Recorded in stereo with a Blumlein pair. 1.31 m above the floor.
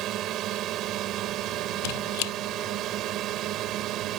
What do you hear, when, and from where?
0.0 s a drone: 35° right
1.8 s a squeak: 45° left